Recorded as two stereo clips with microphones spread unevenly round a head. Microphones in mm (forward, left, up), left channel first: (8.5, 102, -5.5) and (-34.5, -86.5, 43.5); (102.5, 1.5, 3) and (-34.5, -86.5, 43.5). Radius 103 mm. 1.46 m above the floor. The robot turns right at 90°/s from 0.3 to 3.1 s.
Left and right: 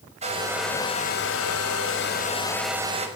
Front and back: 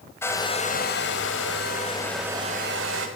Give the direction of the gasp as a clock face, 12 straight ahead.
I don't hear a gasp.